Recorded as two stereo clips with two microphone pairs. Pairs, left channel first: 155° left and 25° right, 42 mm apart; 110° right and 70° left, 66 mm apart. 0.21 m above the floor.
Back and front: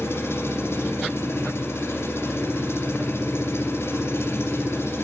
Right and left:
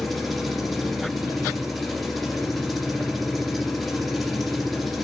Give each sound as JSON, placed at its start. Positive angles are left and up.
{"t": 0.0, "sound": "an engine running", "azimuth_deg": 160, "distance_m": 2.0}